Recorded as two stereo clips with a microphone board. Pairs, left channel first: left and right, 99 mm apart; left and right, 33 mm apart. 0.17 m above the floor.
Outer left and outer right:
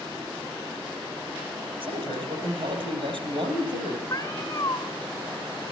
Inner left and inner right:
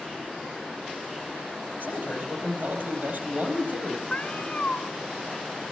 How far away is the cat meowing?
About 1.0 m.